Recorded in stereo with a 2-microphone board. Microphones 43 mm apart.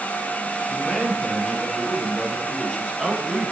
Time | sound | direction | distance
0.7 | a man speaking | 25° left (ahead or behind) | 5.5 m